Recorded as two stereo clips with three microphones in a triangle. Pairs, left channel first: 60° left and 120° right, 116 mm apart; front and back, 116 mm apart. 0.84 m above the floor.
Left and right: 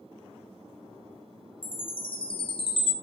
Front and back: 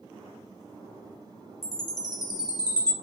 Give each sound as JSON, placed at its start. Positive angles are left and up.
{"t": 1.6, "sound": "a chime", "azimuth_deg": 45, "distance_m": 0.5}